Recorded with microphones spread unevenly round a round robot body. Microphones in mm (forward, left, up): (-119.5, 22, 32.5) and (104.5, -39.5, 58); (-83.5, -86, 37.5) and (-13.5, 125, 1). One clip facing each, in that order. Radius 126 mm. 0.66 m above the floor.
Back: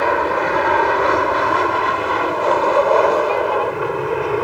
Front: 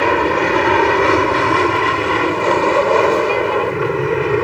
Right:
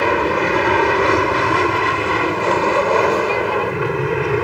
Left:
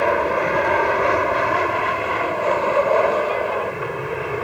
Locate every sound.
0.0 s an aircraft: 60° right; by 4.5 s 70° right